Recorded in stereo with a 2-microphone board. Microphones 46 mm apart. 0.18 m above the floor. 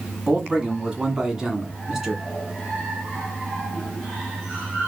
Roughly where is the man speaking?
Right.